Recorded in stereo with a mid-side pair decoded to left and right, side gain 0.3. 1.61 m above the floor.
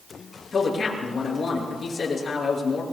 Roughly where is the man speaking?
Ahead left.